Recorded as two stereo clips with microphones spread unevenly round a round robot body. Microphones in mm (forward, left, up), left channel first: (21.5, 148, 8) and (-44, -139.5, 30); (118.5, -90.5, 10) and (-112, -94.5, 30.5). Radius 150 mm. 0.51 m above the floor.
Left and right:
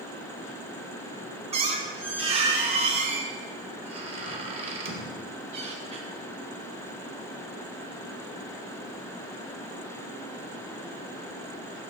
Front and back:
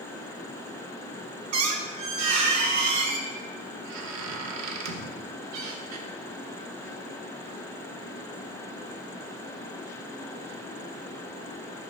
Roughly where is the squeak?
Behind.